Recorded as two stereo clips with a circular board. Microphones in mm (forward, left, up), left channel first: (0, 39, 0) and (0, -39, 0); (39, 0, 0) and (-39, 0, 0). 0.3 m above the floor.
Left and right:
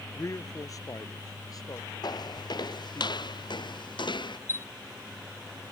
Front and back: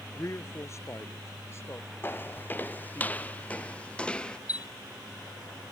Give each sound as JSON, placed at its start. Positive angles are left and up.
{"t": 0.1, "sound": "a man speaking", "azimuth_deg": 45}
{"t": 2.0, "sound": "footsteps", "azimuth_deg": 60}
{"t": 4.5, "sound": "a chime", "azimuth_deg": 30}